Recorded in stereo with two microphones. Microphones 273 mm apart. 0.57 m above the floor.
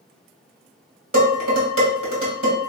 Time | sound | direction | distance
1.1 | dishes clattering | 75° right (ahead or behind) | 2 m